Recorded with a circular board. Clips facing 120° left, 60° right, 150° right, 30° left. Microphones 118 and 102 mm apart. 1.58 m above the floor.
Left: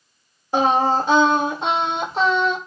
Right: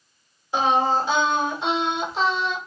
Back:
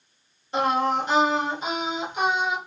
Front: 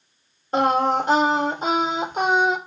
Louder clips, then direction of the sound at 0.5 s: Left 3 dB, front 3 dB; 75° left.